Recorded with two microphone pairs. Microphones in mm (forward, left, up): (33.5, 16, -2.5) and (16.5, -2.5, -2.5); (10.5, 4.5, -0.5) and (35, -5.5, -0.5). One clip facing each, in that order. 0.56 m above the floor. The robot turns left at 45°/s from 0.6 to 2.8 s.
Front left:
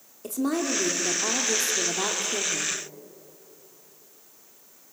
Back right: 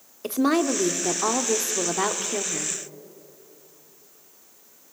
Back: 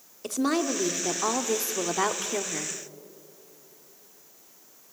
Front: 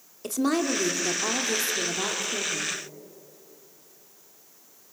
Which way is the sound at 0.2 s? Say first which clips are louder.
Back right 5 dB, front 1 dB; 120° right.